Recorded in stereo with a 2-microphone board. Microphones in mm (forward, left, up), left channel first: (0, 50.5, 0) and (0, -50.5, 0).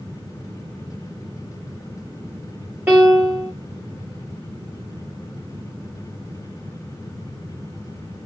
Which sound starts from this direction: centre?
A piano, at 2.9 s.